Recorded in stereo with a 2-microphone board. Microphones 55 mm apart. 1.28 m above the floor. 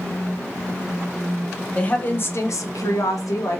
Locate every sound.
1.8 s a woman speaking: 20° left (ahead or behind), 0.7 m; by 3.6 s 65° left (ahead or behind), 0.8 m